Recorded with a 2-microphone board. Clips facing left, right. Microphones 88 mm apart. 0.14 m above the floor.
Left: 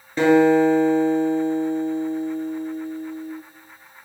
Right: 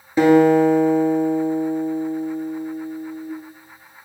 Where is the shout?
I don't hear a shout.